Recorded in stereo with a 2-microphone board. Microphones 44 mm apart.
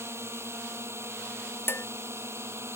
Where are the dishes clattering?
55° left (ahead or behind).